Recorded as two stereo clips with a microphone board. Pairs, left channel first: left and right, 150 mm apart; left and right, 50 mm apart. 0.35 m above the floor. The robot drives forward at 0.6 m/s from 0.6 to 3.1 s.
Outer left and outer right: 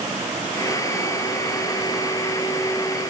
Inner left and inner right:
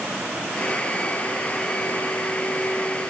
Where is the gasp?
No gasp in this recording.